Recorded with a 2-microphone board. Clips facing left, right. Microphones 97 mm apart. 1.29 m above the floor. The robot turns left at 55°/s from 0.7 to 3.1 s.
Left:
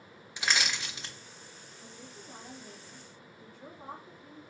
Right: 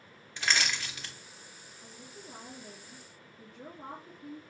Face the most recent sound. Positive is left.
turn(degrees=-65)